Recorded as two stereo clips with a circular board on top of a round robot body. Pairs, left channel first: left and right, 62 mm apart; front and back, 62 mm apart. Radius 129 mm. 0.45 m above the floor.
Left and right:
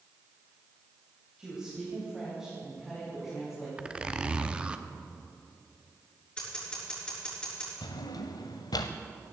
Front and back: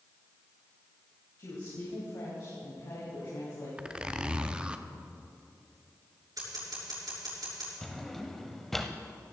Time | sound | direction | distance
1.4 | a woman speaking | 15° right | 3.5 m
3.8 | a zipper | 135° right | 1.0 m
6.4 | scissors | 165° left | 6 m
7.8 | a drawer | 85° left | 0.7 m